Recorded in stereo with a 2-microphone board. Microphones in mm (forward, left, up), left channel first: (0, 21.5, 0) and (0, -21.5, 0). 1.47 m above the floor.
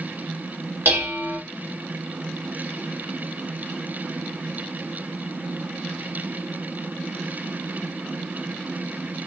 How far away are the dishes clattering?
About 2 m.